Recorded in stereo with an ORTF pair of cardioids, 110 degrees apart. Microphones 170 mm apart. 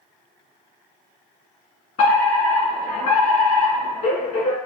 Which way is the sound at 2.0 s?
50° left.